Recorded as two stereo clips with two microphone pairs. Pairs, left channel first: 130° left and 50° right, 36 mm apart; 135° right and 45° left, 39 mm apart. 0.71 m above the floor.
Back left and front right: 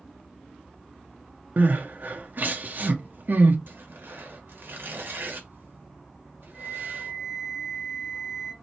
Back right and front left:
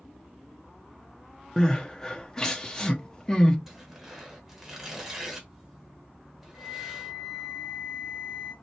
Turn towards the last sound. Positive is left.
turn(degrees=10)